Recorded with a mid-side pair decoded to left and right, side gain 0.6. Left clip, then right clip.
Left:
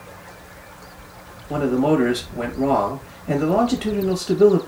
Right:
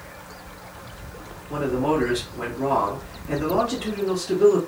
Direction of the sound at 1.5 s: 45° left.